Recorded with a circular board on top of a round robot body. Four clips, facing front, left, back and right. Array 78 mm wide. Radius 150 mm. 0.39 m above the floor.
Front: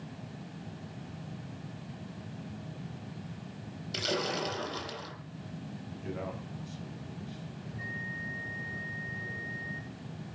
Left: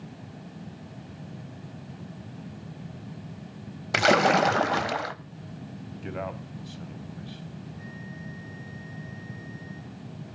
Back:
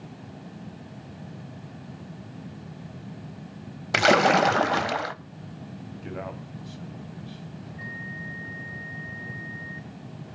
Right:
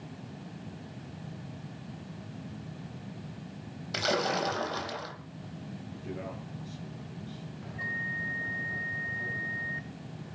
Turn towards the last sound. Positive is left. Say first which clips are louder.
# right 5 dB, back 2 dB
turn(degrees=-105)